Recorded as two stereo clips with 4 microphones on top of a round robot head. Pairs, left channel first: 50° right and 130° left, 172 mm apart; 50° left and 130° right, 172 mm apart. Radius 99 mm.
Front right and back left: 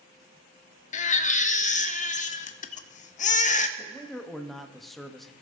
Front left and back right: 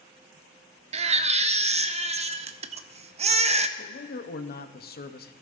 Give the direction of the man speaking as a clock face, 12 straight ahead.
11 o'clock.